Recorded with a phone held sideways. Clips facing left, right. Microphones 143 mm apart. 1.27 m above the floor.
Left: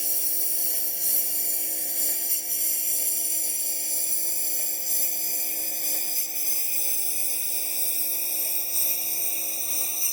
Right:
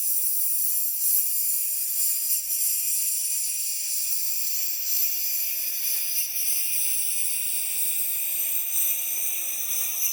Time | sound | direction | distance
0.0 | a lawn mower | 75° left (ahead or behind) | ?